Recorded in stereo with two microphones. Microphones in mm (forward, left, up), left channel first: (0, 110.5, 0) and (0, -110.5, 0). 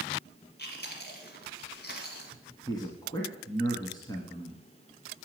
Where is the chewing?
45° left (ahead or behind), 2 m.